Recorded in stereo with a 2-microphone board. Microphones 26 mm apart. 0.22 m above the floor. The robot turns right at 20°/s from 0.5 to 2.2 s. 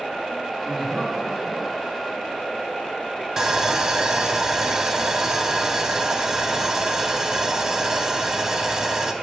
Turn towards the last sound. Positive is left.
turn(degrees=-20)  # may be behind; listen again after turning